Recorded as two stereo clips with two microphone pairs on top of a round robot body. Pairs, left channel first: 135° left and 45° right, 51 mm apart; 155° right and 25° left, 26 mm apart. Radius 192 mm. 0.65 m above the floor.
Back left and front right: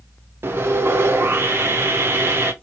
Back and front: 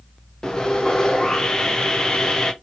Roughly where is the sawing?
Right.